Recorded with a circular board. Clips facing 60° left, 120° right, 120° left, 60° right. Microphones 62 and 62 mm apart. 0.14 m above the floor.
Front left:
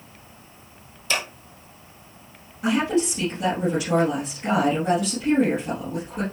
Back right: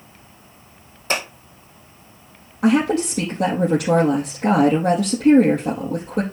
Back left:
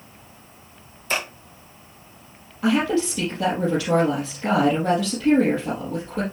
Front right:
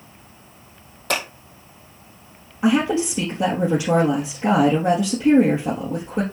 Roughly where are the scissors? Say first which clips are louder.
Back right 3 dB, front right 2 dB; right.